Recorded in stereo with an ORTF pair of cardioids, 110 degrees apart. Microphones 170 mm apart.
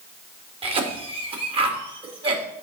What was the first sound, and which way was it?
A cough, 35° right.